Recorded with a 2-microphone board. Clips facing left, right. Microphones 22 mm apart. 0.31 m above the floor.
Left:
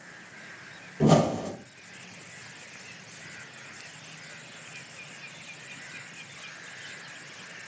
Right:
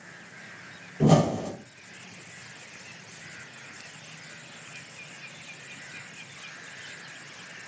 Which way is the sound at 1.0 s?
10° left (ahead or behind).